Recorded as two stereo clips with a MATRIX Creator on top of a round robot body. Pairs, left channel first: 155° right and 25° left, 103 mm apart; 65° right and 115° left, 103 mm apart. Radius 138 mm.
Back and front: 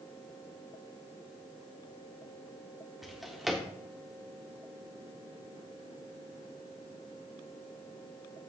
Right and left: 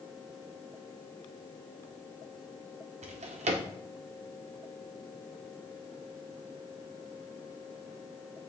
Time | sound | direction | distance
3.0 | a drawer | 110° left | 1.2 m